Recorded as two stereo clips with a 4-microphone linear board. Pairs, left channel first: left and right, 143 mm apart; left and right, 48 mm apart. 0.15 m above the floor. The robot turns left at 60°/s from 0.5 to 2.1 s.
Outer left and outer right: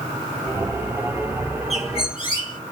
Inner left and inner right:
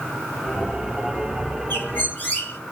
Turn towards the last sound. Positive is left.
turn(degrees=40)  # may be behind; listen again after turning